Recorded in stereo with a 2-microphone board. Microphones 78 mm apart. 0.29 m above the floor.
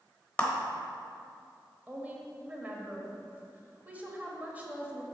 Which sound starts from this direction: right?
A woman speaking, at 1.9 s.